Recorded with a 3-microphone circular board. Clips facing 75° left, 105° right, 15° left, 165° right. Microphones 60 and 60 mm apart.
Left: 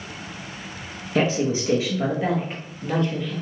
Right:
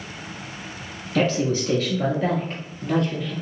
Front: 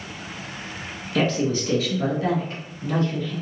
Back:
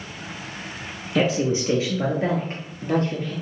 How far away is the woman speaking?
About 1.3 m.